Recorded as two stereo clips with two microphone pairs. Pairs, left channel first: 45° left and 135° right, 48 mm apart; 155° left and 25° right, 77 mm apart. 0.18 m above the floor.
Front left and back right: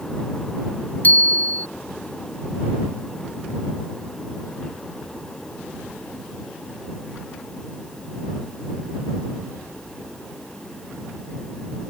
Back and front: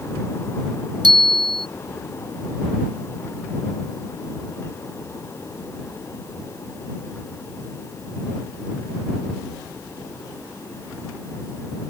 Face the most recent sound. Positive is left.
turn(degrees=-10)